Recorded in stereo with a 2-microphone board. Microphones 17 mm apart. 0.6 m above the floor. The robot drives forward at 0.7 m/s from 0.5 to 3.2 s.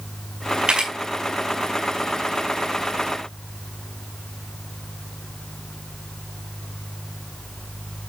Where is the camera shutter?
50° right (ahead or behind), 5 m; by 0.9 s 45° right (ahead or behind), 5 m.